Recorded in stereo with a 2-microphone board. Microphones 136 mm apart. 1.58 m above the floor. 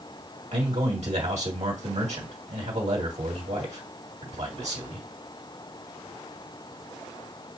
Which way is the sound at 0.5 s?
60° right (ahead or behind).